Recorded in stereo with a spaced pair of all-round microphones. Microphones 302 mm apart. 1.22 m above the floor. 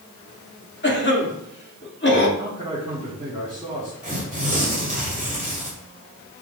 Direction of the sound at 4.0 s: 25° right (ahead or behind).